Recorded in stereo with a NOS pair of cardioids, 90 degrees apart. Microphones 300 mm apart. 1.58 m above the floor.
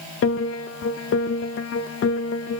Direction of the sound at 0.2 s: 45° left.